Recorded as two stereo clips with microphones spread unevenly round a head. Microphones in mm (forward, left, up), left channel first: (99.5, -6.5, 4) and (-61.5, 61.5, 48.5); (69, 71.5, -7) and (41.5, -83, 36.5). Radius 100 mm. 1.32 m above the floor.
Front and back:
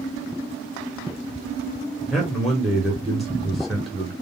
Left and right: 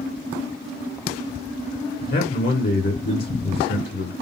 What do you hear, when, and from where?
2.1 s a man speaking: 65° left, 0.9 m